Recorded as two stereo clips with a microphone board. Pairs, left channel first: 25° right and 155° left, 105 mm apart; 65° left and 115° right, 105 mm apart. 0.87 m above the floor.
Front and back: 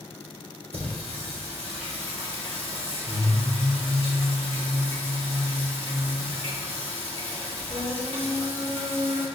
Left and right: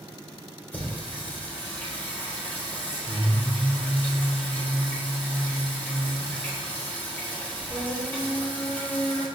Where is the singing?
140° left, 3 m.